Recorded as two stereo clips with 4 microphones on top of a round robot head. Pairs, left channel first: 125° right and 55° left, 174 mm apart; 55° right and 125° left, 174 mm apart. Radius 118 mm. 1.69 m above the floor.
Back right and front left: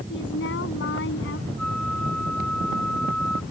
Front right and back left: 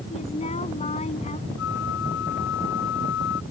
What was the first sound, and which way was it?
A woman speaking, 110° right.